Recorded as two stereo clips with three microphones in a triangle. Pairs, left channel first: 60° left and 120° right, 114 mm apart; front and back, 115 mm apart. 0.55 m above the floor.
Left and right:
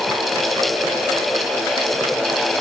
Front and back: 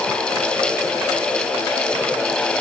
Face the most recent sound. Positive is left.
No sound to turn to.